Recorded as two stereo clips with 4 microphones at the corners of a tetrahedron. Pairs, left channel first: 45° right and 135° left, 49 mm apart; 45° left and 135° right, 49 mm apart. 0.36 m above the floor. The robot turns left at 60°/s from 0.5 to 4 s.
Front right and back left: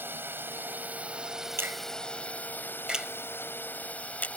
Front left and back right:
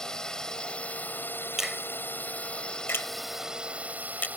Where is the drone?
115° left; by 4.4 s 95° right.